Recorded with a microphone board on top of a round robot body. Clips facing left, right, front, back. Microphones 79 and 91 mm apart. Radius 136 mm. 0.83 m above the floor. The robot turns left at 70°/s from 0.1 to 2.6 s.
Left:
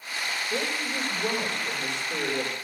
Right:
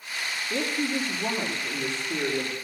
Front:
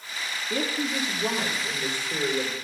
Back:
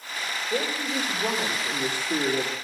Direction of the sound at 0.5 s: 20° right.